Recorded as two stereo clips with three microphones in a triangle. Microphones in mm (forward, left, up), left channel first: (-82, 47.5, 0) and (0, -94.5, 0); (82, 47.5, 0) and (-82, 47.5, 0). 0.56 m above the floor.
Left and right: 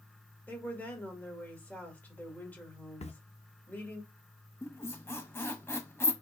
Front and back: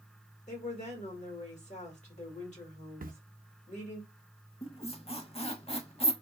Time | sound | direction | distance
0.5 | a woman speaking | 40° left | 1.5 m
3.0 | a camera shutter | 165° left | 0.5 m
4.6 | a squeak | 50° left | 0.6 m